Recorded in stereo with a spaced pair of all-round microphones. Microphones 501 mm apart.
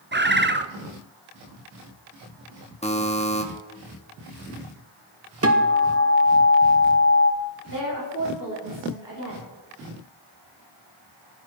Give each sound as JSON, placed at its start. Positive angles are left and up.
{"t": 0.1, "sound": "a bird", "side_deg": -20, "distance_m": 0.6}
{"t": 2.8, "sound": "a buzzer", "side_deg": 10, "distance_m": 1.4}
{"t": 5.4, "sound": "a guitar", "side_deg": -30, "distance_m": 1.2}
{"t": 7.7, "sound": "a woman speaking", "side_deg": 40, "distance_m": 4.5}